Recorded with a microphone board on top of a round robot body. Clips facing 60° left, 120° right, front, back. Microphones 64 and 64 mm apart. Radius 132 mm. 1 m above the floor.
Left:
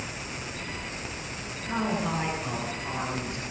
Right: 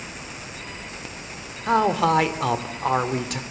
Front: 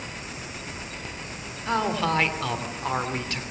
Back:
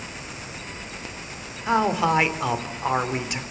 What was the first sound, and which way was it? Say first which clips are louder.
A man speaking: right 10 dB, back 4 dB; 105° right.